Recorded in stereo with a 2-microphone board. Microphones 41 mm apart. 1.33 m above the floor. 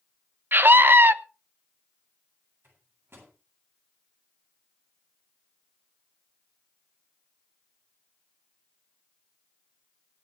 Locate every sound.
0.5 s a scream: 60° right (ahead or behind), 0.9 m
2.6 s a microwave: 70° right (ahead or behind), 9 m